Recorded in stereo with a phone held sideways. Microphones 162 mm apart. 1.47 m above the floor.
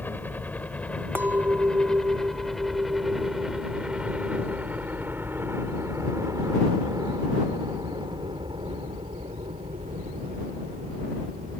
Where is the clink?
15° right (ahead or behind).